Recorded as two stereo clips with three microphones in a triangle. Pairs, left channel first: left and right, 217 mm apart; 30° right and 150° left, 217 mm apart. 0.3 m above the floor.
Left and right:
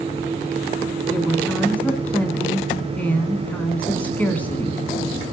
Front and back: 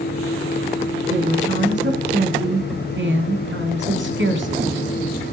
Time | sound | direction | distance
1.1 | a woman speaking | 170° left | 2.5 m